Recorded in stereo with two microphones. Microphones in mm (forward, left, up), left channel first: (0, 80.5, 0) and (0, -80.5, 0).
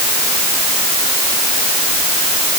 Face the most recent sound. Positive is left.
No sound to turn to.